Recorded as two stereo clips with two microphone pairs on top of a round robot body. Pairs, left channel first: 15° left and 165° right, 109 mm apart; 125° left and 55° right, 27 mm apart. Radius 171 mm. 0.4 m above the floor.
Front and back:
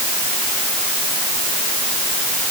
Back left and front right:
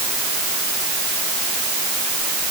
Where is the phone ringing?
I don't hear a phone ringing.